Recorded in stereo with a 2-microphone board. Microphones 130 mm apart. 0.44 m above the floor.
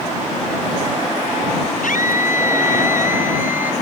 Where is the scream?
80° left.